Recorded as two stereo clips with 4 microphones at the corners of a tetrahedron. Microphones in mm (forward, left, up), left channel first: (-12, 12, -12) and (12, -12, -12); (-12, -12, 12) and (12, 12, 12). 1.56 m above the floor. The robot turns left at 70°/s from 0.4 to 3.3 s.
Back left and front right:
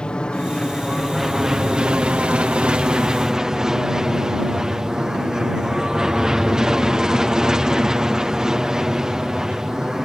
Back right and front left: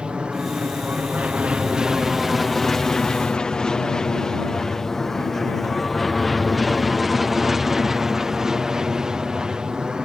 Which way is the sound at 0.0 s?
85° left.